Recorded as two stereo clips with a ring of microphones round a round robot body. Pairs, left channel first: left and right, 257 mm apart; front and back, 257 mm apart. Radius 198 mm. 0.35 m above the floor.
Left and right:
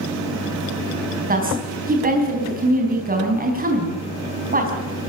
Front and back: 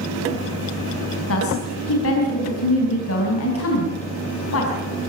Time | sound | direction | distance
1.3 | a woman speaking | 35° right | 4.5 m